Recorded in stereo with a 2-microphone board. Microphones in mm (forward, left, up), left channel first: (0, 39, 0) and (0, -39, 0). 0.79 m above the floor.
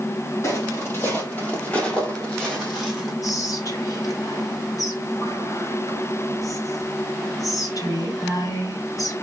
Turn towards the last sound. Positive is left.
turn(degrees=50)  # may be behind; listen again after turning